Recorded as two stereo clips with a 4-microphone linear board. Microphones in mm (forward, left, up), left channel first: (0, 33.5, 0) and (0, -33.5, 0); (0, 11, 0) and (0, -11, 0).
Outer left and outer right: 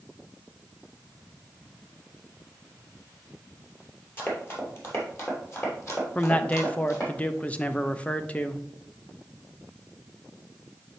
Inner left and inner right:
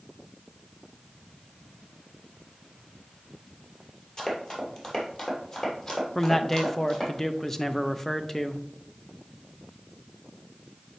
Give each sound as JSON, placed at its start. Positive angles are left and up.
{"t": 4.2, "sound": "running footsteps", "side_deg": 35, "distance_m": 2.5}
{"t": 6.2, "sound": "a man speaking", "side_deg": 20, "distance_m": 0.6}